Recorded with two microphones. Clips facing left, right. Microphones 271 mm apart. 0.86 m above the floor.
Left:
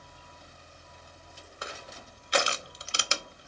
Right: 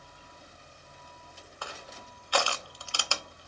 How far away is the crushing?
About 0.8 m.